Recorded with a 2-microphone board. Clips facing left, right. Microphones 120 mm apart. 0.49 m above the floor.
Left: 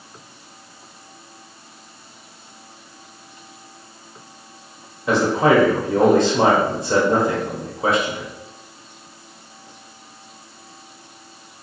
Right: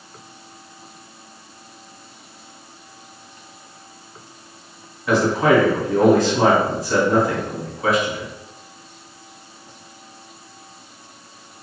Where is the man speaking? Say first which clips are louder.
Even; 25° left (ahead or behind), 0.9 m.